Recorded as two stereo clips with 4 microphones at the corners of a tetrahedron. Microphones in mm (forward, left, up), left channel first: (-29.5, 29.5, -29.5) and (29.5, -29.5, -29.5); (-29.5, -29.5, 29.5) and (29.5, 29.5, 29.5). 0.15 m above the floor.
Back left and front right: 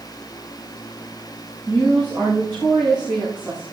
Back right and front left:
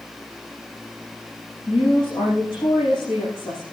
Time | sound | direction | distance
1.7 | a woman speaking | 155° right | 9.5 m